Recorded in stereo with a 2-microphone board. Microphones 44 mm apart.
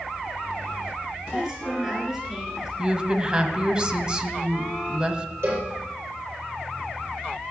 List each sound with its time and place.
1.3 s a woman speaking: 15° right (ahead or behind), 3 m
2.8 s a woman speaking: 20° right (ahead or behind), 1.4 m
5.4 s a cowbell: 80° right, 6.5 m